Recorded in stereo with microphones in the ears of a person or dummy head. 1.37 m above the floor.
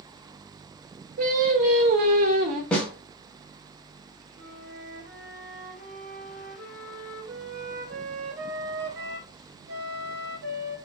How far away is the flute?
About 1.2 m.